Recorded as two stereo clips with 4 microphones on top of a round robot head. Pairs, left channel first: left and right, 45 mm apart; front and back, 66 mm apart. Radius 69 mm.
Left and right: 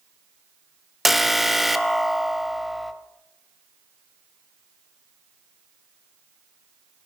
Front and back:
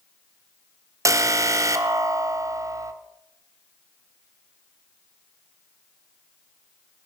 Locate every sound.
1.1 s an alarm: 175° right, 0.9 m